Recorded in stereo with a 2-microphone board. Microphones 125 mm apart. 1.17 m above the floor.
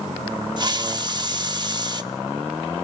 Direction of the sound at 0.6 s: 35° right (ahead or behind).